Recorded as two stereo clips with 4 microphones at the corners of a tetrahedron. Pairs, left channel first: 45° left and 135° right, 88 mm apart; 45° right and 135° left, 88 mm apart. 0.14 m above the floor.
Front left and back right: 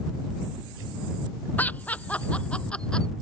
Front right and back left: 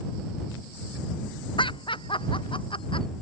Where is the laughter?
25° right; by 3.1 s 35° right.